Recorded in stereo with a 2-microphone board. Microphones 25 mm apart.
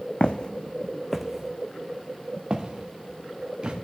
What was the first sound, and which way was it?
Footsteps, 55° left (ahead or behind).